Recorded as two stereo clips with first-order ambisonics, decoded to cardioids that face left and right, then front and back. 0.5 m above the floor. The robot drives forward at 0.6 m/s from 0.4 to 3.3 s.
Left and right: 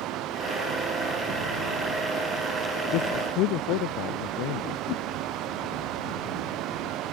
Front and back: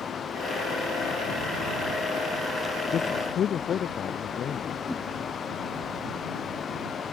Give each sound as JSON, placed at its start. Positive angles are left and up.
{"t": 2.9, "sound": "a man speaking", "azimuth_deg": 60}
{"t": 4.9, "sound": "a whoosh", "azimuth_deg": 90}